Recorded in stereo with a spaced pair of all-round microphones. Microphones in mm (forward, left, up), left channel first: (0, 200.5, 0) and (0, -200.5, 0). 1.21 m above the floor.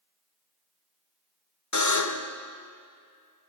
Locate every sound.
1.7 s a buzzer: 50° left (ahead or behind), 0.5 m